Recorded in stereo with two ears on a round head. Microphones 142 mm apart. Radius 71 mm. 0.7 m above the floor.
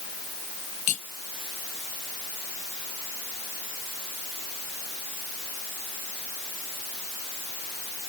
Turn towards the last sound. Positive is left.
turn(degrees=50)  # may be behind; listen again after turning